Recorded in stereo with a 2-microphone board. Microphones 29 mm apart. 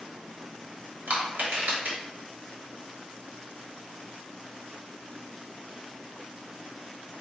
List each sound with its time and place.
1.1 s crushing: 75° right (ahead or behind), 1.6 m